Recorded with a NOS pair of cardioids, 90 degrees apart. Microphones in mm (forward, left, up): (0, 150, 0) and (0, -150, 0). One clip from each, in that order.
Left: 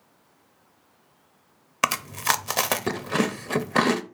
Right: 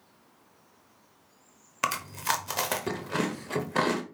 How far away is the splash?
I don't hear a splash.